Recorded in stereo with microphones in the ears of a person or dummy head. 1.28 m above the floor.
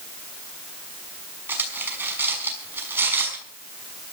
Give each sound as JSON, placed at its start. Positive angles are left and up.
{"t": 1.5, "sound": "cutlery clinking", "side_deg": -10, "distance_m": 6.0}